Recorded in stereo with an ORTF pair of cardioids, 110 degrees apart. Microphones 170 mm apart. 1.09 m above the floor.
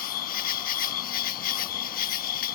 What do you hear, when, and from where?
0.0 s an insect: 60° left